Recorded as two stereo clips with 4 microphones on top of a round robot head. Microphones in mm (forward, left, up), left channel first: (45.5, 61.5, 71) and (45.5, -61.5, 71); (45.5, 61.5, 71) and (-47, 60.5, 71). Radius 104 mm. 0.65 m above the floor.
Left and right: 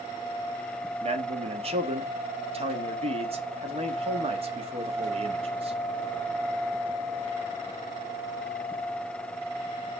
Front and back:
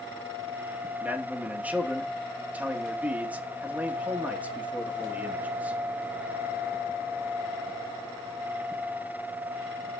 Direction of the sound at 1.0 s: 105° right.